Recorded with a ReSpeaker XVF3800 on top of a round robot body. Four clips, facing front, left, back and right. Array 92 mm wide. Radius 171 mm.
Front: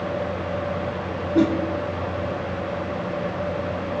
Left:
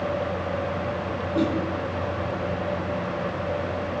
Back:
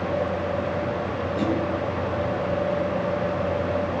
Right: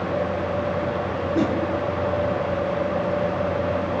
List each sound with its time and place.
1.4 s a whoosh: 20° right, 1.6 m